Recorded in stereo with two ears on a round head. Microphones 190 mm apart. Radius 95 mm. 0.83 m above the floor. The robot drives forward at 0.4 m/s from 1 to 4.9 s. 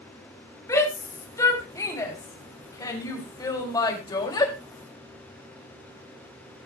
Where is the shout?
15° left (ahead or behind), 5 m; by 4.5 s 20° left (ahead or behind), 3.5 m.